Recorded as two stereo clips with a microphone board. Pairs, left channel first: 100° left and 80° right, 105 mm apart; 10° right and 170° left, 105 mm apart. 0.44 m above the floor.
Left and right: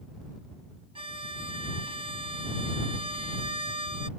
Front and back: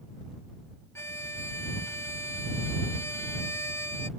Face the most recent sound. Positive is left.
turn(degrees=-75)